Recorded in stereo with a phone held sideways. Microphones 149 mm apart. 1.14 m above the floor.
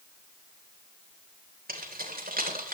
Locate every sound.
1.7 s keys jangling: 85° right, 3.5 m